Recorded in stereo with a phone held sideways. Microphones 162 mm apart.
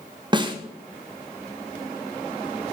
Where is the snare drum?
30° right (ahead or behind), 1.0 m.